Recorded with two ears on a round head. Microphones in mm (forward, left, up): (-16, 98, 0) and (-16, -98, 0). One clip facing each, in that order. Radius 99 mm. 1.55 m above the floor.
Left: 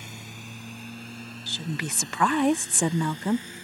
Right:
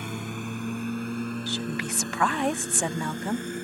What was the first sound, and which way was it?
A lawn mower, 45° right (ahead or behind).